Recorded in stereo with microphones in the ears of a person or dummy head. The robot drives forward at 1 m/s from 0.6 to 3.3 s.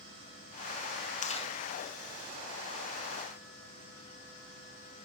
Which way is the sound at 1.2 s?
40° left (ahead or behind).